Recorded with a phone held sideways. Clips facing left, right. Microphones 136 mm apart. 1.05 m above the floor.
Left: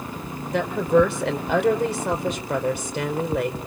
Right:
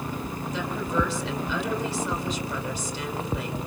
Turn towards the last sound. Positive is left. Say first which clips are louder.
# left 10 dB
turn(degrees=60)  # may be behind; listen again after turning